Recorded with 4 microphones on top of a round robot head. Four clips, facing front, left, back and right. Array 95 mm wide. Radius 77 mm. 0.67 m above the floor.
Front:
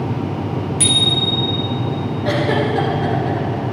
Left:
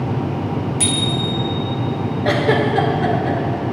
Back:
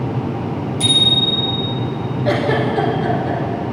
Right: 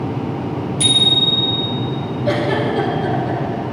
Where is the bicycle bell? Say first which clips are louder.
Right 1 dB, back 2 dB; 40° left, 6.5 m.